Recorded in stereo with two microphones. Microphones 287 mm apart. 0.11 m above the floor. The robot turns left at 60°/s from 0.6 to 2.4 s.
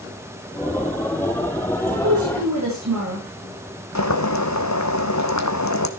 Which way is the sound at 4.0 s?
75° left (ahead or behind).